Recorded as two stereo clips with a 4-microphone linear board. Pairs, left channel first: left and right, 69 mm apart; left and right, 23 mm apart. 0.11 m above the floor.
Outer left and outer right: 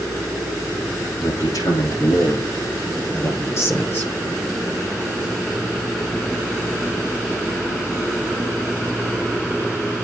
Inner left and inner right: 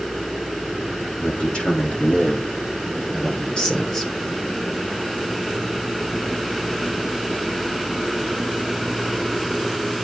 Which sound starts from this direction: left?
A man speaking, at 1.2 s.